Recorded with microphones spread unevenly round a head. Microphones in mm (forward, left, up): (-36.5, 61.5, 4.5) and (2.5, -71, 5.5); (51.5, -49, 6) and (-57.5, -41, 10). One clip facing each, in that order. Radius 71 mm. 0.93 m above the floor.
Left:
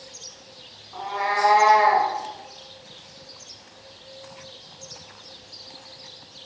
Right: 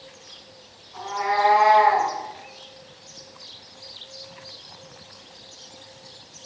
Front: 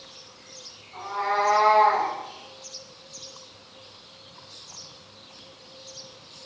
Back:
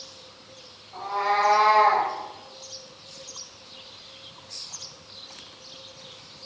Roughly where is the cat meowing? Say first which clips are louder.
Right 2 dB, back 2 dB; behind left.